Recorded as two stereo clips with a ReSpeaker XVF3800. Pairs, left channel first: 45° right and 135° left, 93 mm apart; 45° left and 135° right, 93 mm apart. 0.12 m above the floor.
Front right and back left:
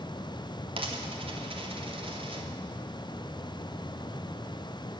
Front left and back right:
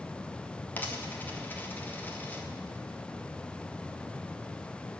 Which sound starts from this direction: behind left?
A dropped coin, at 0.8 s.